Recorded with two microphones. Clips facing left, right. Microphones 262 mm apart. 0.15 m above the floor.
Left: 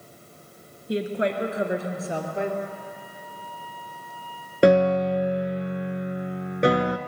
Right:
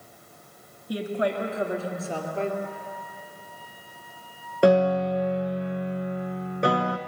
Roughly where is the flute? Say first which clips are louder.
Even; left.